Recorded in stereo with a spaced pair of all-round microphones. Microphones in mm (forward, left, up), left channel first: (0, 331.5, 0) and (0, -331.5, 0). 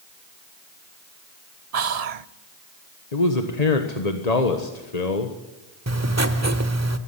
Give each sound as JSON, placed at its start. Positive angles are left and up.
{"t": 1.7, "sound": "whispering", "side_deg": -65, "distance_m": 0.8}
{"t": 3.1, "sound": "a man speaking", "side_deg": 70, "distance_m": 1.6}
{"t": 5.9, "sound": "writing", "side_deg": -25, "distance_m": 1.3}